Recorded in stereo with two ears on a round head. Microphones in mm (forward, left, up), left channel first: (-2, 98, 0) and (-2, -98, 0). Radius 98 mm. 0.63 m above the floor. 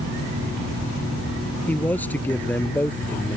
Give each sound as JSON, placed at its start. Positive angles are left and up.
{"t": 1.7, "sound": "a man speaking", "side_deg": 10}